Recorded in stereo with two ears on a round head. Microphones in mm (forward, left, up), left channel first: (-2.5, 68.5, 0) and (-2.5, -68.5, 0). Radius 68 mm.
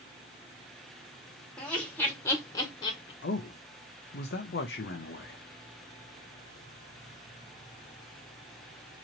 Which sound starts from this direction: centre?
Laughter, at 1.6 s.